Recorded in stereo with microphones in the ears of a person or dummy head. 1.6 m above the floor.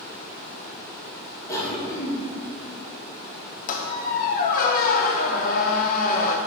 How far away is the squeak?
About 0.8 m.